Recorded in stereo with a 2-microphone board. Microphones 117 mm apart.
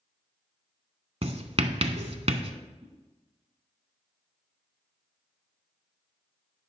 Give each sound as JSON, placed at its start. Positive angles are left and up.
{"t": 1.2, "sound": "writing", "side_deg": -60, "distance_m": 0.7}
{"t": 2.8, "sound": "a whoosh", "side_deg": -65, "distance_m": 3.0}